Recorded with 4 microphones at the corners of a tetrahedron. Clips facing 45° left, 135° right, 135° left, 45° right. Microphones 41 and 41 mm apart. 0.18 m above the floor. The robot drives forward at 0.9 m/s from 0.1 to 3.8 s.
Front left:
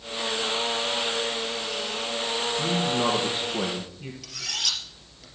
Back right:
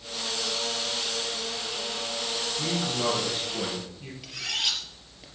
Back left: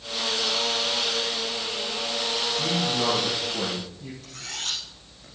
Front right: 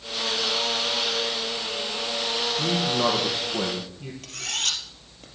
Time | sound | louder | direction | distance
2.6 | a man speaking | front left 3 dB, front right 3 dB | 20° right | 6 m
4.2 | cutlery clinking | back right 1 dB, front right 6 dB | 65° right | 3 m